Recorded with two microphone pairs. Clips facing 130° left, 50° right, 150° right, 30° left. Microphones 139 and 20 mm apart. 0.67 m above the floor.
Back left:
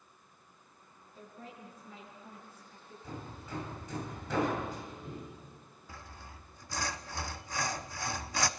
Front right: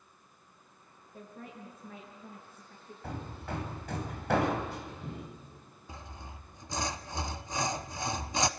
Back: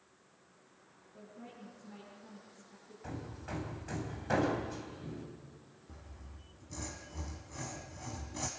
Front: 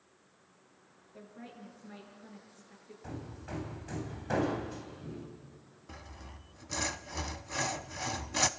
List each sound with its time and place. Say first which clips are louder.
1.1 s a woman speaking: front right 3 dB, front 2 dB; 15° right, 9 m
3.0 s hammering: front right 5 dB, even; 70° right, 4 m
5.9 s sawing: front right 3 dB, front 9 dB; 20° left, 0.8 m